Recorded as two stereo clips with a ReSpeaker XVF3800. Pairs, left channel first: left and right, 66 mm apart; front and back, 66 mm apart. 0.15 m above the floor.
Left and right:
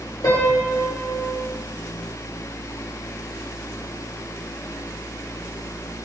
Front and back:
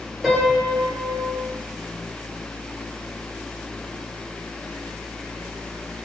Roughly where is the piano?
Left.